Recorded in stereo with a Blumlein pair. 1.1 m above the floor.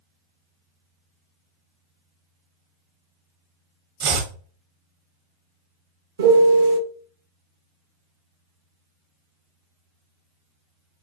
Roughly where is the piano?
Ahead right.